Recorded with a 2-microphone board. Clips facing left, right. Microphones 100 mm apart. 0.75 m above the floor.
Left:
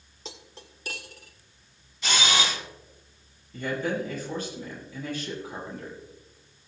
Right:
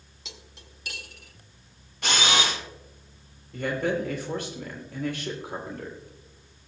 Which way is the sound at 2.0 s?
55° right (ahead or behind).